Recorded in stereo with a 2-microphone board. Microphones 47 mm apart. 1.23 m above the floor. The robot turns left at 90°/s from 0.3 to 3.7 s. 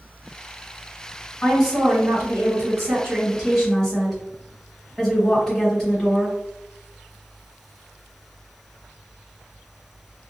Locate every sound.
1.4 s a woman speaking: 15° left, 1.3 m; by 6.4 s 165° left, 1.3 m